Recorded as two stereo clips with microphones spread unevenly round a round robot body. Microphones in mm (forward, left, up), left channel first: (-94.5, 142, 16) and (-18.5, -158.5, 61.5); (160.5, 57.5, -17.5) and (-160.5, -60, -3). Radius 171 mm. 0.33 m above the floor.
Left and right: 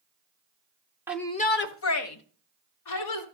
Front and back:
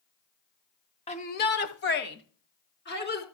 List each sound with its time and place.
1.1 s a shout: 20° left, 0.8 m; by 3.2 s 80° left, 3.5 m